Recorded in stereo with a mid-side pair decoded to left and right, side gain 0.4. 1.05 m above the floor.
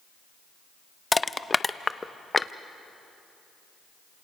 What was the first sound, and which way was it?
Crushing, 25° left.